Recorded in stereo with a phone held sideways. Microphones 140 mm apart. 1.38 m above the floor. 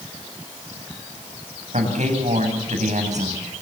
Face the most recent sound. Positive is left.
turn(degrees=-65)  # may be behind; listen again after turning